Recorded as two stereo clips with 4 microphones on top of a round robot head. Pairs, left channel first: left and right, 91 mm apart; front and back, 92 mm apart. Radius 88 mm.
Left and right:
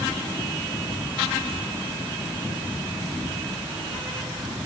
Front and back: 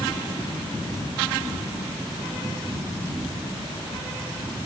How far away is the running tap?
I don't hear a running tap.